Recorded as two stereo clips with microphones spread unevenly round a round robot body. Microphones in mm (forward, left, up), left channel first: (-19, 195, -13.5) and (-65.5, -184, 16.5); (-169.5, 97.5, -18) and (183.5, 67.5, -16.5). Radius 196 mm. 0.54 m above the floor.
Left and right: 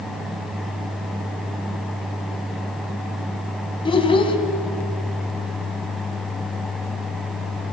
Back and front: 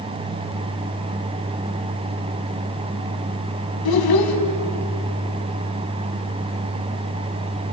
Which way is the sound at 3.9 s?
160° left.